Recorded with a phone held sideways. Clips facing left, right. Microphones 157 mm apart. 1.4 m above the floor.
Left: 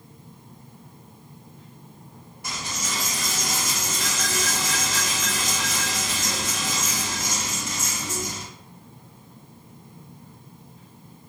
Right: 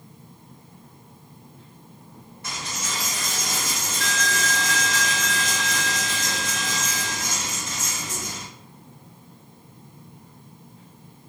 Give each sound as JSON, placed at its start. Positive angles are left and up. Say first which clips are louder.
{"t": 2.4, "sound": "a dropped coin", "louder": "left 1 dB", "side_deg": 10, "distance_m": 1.3}